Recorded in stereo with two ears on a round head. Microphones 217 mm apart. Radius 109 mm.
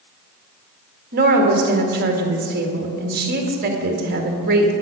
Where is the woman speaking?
40° right (ahead or behind), 1.9 m.